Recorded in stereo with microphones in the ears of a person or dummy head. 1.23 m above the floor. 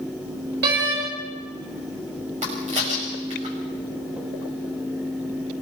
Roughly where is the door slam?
Right.